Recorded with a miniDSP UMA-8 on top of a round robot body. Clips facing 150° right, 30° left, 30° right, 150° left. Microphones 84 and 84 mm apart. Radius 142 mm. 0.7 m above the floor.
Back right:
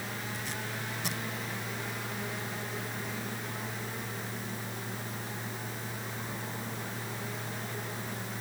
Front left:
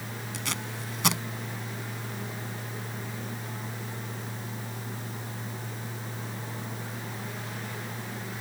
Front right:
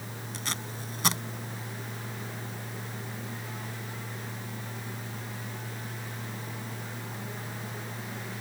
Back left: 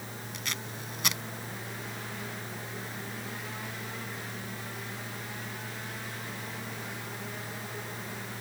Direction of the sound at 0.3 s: 25° left.